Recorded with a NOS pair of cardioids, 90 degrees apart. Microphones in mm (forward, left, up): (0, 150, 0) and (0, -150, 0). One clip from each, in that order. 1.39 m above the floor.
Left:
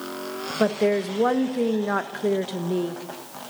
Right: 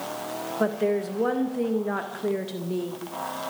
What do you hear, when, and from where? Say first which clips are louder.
0.6 s a woman speaking: left 3 dB; 30° left, 1.7 m